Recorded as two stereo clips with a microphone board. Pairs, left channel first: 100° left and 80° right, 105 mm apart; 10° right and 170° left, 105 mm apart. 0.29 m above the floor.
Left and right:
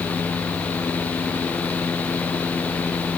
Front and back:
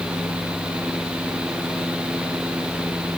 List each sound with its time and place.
Only background noise.